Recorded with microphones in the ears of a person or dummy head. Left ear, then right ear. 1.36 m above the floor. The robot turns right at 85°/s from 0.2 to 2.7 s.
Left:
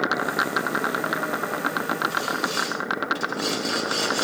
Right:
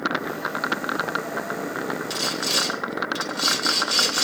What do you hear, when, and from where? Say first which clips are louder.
2.1 s sawing: right 1 dB; 80° right, 4 m; by 4.2 s 30° right, 4 m